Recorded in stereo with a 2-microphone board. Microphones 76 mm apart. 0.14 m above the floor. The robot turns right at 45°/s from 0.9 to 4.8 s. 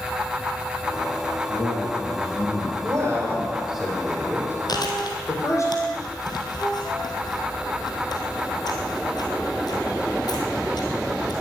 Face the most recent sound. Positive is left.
turn(degrees=65)  # may be behind; listen again after turning